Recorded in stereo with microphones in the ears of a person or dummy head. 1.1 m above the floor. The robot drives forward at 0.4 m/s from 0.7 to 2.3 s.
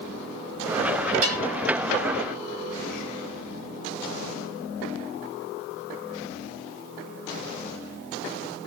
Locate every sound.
1.2 s a bell: 75° right (ahead or behind), 3.5 m